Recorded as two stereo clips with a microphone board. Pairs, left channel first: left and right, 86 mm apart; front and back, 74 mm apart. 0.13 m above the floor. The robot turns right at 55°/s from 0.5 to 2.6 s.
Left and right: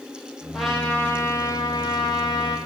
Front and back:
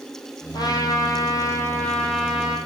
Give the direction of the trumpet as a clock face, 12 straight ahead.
12 o'clock.